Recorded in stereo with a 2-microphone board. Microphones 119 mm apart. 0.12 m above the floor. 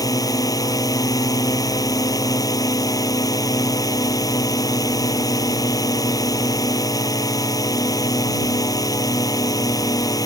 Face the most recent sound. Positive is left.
turn(degrees=30)  # may be behind; listen again after turning